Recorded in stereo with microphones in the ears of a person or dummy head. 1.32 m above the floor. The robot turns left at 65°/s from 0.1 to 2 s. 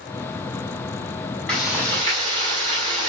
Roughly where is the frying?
Ahead.